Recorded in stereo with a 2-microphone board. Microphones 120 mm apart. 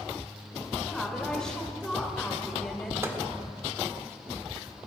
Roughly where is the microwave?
Right.